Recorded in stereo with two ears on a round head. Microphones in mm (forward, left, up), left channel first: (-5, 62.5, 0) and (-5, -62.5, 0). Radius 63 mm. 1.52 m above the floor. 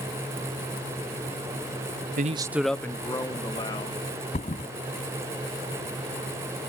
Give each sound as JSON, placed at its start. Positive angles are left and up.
{"t": 2.2, "sound": "a man speaking", "side_deg": -65}
{"t": 4.3, "sound": "a thud", "side_deg": 50}